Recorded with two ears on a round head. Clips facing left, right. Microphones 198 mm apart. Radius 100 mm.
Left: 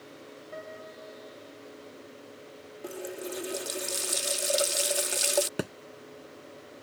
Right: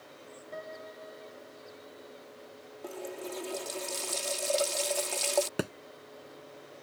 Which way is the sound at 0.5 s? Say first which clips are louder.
Even; centre (ahead or behind).